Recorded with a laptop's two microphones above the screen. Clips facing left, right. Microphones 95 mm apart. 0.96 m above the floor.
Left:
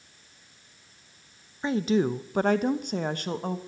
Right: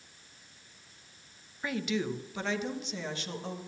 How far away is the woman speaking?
About 0.6 m.